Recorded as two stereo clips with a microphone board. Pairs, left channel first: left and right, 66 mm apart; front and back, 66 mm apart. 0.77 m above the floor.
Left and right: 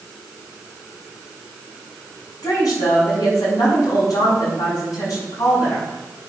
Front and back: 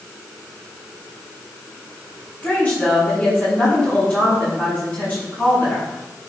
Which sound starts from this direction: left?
A woman speaking, at 2.4 s.